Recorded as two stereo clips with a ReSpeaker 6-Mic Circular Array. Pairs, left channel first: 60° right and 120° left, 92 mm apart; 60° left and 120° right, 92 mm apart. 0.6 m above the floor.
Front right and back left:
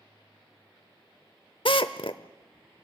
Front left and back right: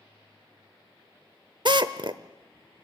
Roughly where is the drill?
Right.